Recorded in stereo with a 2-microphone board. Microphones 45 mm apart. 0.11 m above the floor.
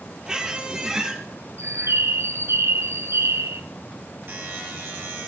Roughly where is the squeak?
Centre.